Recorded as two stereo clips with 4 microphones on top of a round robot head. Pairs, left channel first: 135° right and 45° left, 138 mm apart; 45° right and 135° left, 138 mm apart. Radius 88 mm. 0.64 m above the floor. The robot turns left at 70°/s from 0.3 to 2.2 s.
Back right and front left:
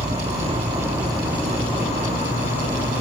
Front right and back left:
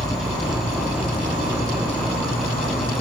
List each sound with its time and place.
0.0 s an insect: 20° left, 1.6 m; by 3.0 s 115° right, 1.6 m